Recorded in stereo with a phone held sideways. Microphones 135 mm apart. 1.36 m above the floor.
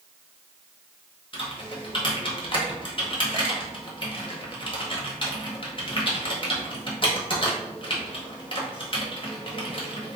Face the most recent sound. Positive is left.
turn(degrees=40)  # may be behind; listen again after turning